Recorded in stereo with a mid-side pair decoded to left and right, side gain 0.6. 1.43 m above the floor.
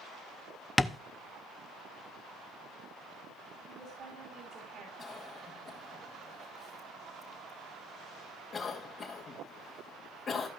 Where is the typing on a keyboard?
I don't hear typing on a keyboard.